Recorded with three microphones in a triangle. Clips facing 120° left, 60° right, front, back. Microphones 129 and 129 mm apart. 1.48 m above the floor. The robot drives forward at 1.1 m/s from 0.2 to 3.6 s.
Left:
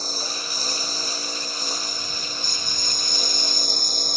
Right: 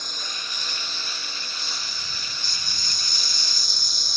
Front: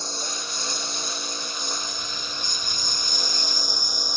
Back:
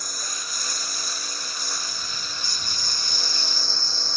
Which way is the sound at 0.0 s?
65° left.